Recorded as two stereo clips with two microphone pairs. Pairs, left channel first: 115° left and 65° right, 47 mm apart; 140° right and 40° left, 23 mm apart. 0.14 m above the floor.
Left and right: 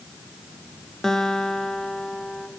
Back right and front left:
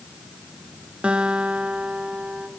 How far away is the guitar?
About 1.6 m.